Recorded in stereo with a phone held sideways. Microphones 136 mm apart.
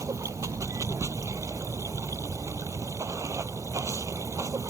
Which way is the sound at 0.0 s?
25° right (ahead or behind).